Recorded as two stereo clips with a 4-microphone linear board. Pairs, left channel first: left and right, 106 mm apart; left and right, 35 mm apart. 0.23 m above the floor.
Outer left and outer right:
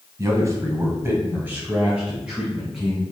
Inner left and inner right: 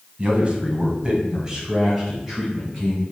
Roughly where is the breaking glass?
No breaking glass in this recording.